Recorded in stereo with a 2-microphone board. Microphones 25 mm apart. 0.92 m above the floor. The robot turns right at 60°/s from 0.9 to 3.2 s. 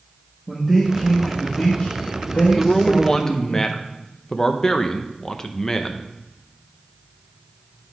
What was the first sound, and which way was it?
A man speaking, 10° left.